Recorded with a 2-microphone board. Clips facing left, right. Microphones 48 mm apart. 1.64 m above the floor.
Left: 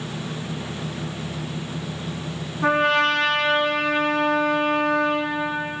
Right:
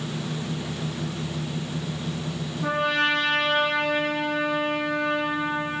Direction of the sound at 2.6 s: 55° left (ahead or behind).